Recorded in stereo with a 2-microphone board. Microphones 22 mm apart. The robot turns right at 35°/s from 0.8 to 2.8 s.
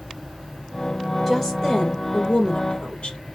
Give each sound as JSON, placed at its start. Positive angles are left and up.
{"t": 1.3, "sound": "a woman speaking", "azimuth_deg": 15, "distance_m": 2.0}